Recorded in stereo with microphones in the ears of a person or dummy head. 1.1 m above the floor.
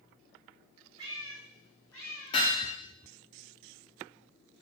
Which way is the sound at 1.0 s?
30° right (ahead or behind).